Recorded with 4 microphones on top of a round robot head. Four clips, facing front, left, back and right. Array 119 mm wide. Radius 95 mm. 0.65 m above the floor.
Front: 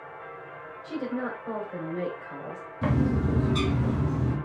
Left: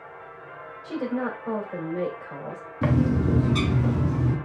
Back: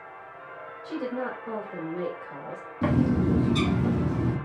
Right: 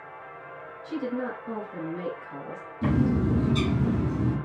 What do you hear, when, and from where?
0.8 s a woman speaking: 90° left, 2.5 m
2.8 s a bird: 90° left, 2.5 m